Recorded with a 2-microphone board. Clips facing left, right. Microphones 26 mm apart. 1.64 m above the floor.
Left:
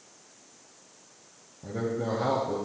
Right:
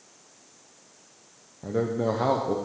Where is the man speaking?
35° right (ahead or behind), 0.6 m.